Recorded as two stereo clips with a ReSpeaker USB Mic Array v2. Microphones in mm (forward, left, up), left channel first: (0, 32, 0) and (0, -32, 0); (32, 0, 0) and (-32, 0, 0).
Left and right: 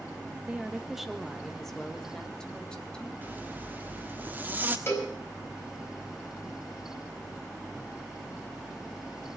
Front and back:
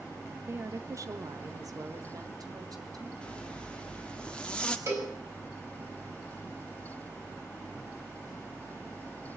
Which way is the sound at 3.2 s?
65° right.